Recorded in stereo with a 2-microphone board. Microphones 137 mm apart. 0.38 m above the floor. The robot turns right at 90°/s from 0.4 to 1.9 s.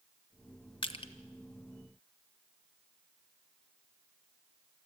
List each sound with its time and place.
0.8 s crushing: 40° left (ahead or behind), 1.2 m